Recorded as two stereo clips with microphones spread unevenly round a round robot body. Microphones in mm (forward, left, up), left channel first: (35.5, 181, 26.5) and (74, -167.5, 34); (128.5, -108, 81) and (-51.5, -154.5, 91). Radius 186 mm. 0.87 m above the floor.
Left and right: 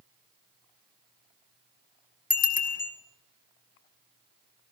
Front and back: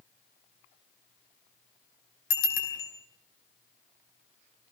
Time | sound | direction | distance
2.3 | a bicycle bell | 30° left | 5 m